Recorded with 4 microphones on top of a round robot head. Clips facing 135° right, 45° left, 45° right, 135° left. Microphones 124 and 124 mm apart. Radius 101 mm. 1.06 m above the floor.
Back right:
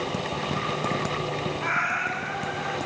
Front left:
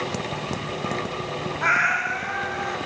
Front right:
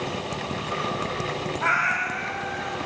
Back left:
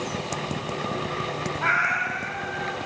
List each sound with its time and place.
1.6 s a cat meowing: 35° left, 1.1 m; by 2.8 s 10° left, 1.4 m